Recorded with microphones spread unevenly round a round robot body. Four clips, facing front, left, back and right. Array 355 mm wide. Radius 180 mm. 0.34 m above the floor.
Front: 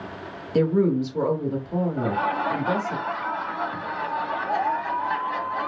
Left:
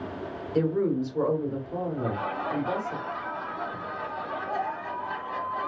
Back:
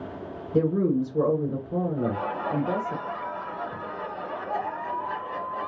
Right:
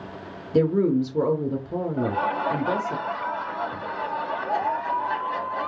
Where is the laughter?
130° right, 1.0 m.